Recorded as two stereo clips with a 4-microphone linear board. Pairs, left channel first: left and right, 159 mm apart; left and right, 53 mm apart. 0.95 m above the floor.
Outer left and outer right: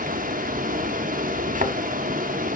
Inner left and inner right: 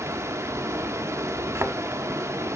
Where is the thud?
55° right (ahead or behind), 0.9 m.